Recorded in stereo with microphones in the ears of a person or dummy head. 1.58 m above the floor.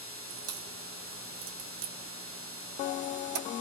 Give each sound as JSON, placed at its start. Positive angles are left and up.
{"t": 0.3, "sound": "a crack", "side_deg": -50, "distance_m": 1.8}